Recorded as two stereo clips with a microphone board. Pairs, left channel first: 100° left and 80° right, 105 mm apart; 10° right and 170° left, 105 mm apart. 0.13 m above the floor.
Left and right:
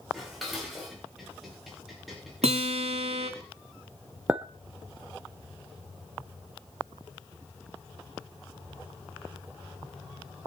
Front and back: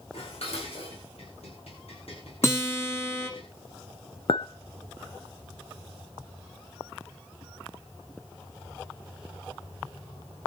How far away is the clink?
About 1.2 m.